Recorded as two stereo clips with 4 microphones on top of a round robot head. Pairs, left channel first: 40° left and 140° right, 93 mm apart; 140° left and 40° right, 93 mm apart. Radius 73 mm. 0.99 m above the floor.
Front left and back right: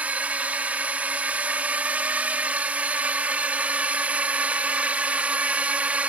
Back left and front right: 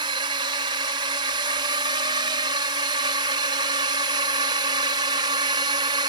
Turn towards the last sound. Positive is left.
turn(degrees=-65)